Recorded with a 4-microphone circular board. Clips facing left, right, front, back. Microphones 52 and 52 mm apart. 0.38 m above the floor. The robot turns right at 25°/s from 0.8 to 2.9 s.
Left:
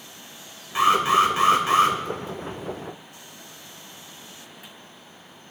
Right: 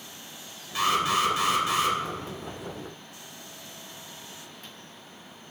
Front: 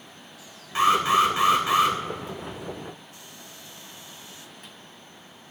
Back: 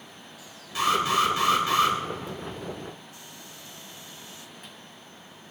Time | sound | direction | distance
0.8 | an alarm | 40° left | 2.5 m